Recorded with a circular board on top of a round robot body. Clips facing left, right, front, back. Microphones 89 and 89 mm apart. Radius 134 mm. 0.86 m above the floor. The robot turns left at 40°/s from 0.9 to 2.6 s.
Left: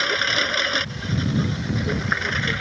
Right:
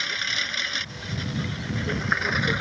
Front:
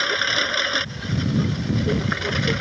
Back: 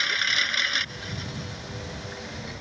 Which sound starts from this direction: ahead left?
A lawn mower, at 0.0 s.